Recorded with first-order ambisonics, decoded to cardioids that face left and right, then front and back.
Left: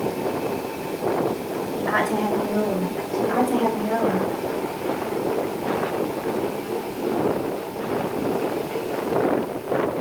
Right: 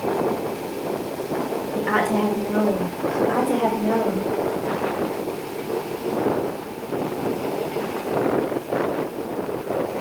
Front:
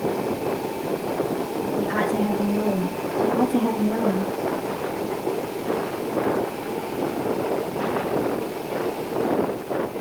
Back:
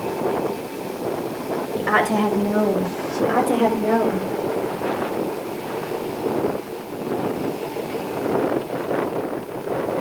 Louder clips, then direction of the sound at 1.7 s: Right 1 dB, back 5 dB; 160° right.